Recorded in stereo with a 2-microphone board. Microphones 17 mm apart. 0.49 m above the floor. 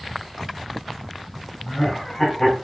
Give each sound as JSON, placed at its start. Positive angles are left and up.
{"t": 1.6, "sound": "laughter", "side_deg": 35, "distance_m": 2.5}